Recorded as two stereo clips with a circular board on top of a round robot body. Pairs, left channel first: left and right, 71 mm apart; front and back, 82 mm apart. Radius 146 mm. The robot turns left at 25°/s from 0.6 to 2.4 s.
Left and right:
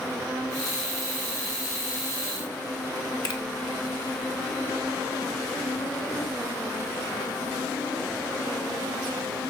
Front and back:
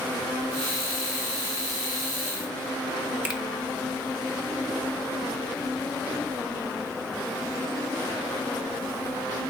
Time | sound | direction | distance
3.2 | a finger snap | 110° left | 1.7 m